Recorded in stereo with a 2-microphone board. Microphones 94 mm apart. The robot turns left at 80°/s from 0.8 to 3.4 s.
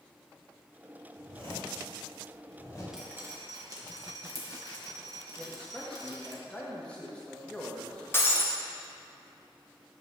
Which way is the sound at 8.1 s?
25° left (ahead or behind).